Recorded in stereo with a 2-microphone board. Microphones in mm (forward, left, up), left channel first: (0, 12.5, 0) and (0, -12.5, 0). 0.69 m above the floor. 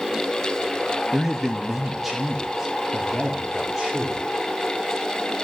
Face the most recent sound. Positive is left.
turn(degrees=-5)  # may be behind; listen again after turning